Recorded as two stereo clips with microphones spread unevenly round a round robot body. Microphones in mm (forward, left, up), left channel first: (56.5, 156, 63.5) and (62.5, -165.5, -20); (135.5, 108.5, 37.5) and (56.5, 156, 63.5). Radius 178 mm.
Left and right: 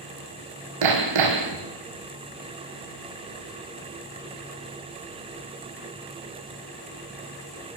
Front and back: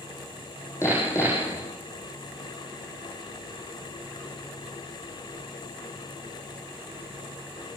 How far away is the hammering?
About 4.5 m.